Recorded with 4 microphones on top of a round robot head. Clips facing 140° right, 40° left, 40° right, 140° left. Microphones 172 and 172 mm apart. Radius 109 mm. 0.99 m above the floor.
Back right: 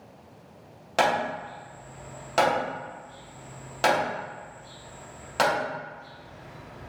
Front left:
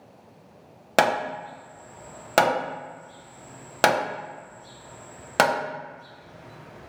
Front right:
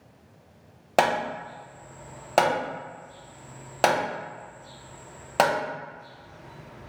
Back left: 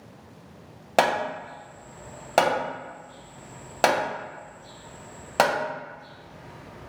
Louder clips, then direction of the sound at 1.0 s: Front left 2 dB, back left 1 dB; 50° left.